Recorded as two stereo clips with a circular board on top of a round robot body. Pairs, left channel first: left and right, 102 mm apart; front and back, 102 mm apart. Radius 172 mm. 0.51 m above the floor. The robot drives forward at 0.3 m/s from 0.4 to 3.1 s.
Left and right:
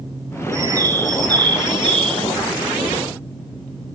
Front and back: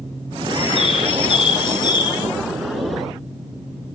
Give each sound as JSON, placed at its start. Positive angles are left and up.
{"t": 0.5, "sound": "a bird", "azimuth_deg": -30, "distance_m": 1.0}